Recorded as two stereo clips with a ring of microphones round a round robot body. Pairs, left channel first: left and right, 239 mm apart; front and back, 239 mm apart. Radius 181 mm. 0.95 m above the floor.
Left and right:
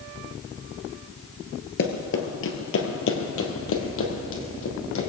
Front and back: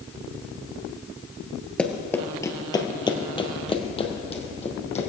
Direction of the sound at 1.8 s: 85° left.